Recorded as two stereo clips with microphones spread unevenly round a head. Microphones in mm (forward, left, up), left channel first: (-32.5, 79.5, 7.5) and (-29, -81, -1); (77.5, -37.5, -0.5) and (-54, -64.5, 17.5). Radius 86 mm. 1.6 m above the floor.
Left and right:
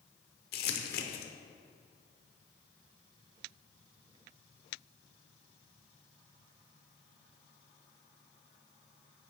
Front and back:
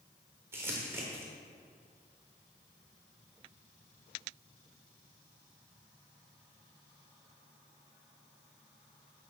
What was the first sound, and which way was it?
Crumpling, 115° left.